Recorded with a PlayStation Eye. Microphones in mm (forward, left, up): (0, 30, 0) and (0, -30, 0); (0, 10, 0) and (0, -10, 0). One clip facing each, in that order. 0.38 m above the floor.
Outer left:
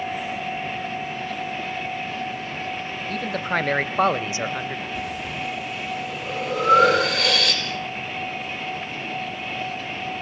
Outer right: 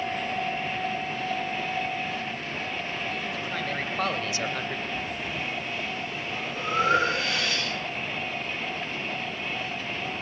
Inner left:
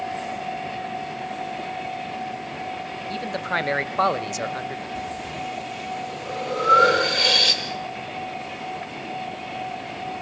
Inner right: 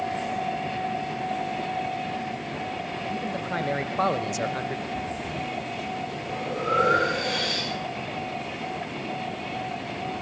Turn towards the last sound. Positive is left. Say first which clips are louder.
# outer left 3 dB, even
turn(degrees=85)